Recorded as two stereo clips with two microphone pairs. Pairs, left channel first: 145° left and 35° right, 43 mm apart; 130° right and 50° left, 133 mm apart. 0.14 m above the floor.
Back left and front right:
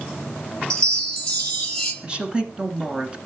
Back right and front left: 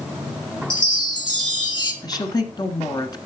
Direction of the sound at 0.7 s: 145° right.